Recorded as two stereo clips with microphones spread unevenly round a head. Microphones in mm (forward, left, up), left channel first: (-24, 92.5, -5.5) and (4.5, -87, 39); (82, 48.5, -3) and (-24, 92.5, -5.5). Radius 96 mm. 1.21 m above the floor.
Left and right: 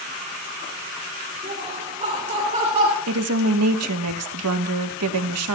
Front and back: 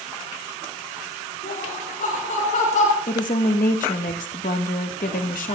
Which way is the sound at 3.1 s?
70° right.